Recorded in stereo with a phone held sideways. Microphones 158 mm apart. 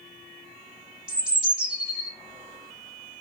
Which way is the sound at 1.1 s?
5° right (ahead or behind).